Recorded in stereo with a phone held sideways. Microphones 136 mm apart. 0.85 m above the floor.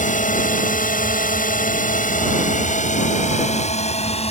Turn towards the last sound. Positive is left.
turn(degrees=45)  # may be behind; listen again after turning